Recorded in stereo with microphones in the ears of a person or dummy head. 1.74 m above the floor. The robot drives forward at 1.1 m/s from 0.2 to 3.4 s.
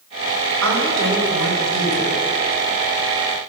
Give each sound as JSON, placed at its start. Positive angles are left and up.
{"t": 0.6, "sound": "a woman speaking", "side_deg": -85, "distance_m": 7.5}